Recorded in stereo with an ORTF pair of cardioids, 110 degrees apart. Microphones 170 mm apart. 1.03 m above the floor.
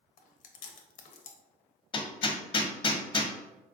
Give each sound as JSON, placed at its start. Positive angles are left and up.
{"t": 0.2, "sound": "chewing", "azimuth_deg": 50, "distance_m": 0.6}
{"t": 1.9, "sound": "hammering", "azimuth_deg": 30, "distance_m": 0.6}